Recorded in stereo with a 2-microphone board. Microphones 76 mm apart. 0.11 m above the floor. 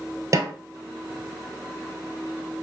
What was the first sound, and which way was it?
A snare drum, 45° right (ahead or behind).